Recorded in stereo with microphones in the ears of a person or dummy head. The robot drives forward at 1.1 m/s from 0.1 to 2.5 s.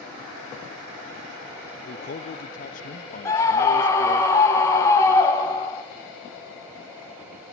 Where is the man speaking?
30° left (ahead or behind), 0.9 m; by 4.2 s 40° left (ahead or behind), 0.7 m.